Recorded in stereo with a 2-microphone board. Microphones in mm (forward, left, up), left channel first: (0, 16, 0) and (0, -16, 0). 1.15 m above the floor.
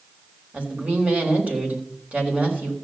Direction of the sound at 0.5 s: 45° right (ahead or behind).